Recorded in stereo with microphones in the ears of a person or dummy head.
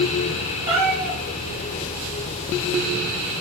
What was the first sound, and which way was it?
A cat meowing, 15° right (ahead or behind).